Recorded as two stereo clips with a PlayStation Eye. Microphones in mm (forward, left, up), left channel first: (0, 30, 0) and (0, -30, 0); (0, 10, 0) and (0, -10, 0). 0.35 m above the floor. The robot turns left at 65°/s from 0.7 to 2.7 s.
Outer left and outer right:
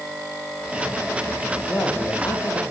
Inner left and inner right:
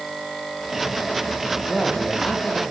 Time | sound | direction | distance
1.7 | a man speaking | 150° left | 9.5 m